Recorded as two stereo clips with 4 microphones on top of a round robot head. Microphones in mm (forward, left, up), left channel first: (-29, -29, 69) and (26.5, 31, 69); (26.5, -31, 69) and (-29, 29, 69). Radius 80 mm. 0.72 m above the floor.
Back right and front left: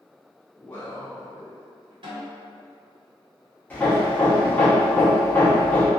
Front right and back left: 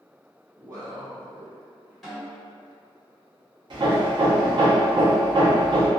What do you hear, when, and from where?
0.6 s a man speaking: 175° left, 0.7 m
2.0 s a snare drum: 40° left, 1.5 m
3.7 s hammering: 160° left, 0.8 m